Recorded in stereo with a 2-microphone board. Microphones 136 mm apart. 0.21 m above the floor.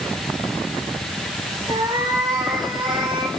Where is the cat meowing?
35° right (ahead or behind), 3.5 m.